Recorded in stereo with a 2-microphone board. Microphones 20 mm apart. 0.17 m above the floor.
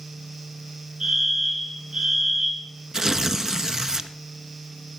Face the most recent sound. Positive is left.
turn(degrees=-30)  # may be behind; listen again after turning